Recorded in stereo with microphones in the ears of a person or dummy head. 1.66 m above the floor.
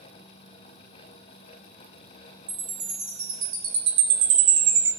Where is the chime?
30° right (ahead or behind), 0.7 m.